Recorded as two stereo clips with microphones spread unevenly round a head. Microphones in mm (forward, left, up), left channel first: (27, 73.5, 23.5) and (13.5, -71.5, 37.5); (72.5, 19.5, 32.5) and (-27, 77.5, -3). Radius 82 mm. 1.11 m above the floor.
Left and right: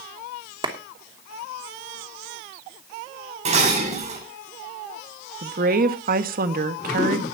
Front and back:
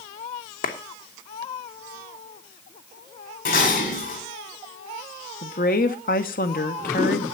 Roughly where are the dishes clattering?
Ahead right.